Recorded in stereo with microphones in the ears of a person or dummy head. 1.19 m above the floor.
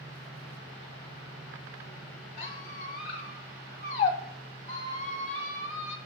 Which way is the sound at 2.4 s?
40° left (ahead or behind).